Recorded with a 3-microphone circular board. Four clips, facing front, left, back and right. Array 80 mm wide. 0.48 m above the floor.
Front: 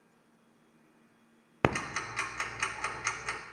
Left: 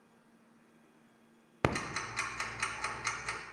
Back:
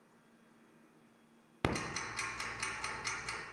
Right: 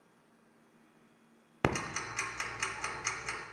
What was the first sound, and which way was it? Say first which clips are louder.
Ticking: even, front 6 dB; 5° left.